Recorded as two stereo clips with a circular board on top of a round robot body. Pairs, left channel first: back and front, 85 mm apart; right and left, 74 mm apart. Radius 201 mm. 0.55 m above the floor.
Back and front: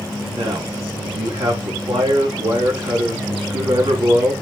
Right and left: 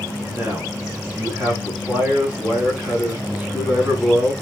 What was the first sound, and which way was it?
A man speaking, 20° left.